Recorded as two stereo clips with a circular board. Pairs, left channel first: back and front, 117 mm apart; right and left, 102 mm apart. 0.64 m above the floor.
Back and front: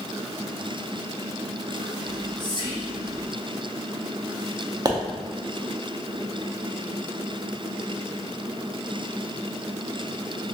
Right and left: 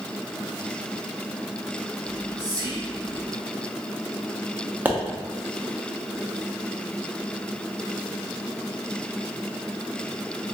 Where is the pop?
30° left, 0.5 m.